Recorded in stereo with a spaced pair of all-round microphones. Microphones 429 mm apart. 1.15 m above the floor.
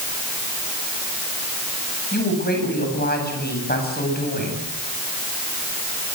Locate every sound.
2.1 s a woman speaking: 20° left (ahead or behind), 9 m